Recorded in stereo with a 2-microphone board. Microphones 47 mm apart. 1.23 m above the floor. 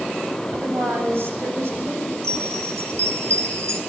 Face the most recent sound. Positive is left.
turn(degrees=-75)  # may be behind; listen again after turning